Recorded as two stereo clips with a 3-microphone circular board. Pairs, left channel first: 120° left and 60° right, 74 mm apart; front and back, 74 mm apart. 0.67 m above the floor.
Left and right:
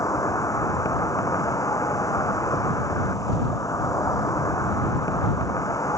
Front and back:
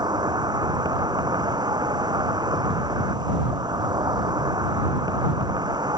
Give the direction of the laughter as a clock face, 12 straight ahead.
No laughter in this recording.